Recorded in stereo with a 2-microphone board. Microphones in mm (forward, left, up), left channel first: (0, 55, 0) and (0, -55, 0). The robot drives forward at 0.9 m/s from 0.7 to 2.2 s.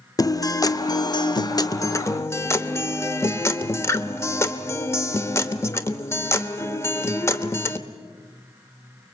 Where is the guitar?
35° left (ahead or behind), 0.9 m; by 7.8 s 25° left (ahead or behind), 1.2 m.